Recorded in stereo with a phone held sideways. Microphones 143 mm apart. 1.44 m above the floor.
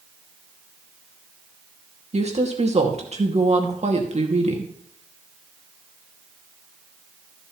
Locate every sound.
2.1 s a woman speaking: 50° right (ahead or behind), 2.5 m